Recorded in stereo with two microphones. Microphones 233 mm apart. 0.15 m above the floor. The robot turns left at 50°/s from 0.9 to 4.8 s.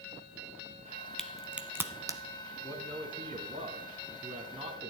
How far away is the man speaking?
About 1.6 m.